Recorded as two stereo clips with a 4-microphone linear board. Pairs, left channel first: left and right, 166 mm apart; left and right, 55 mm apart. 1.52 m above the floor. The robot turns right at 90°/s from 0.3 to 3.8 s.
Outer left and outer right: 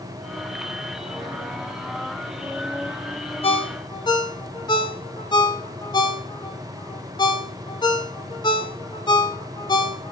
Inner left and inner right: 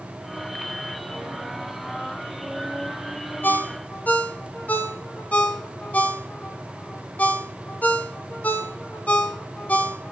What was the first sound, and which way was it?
A ringtone, 35° left (ahead or behind).